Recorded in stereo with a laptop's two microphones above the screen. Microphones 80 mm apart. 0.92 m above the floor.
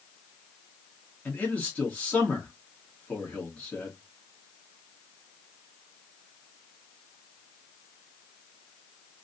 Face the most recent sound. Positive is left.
turn(degrees=15)  # may be behind; listen again after turning